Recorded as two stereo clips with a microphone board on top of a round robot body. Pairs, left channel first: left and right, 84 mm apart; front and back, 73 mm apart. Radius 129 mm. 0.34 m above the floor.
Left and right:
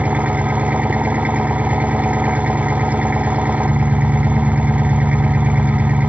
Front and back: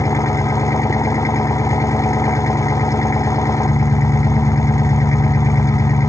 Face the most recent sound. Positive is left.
turn(degrees=-20)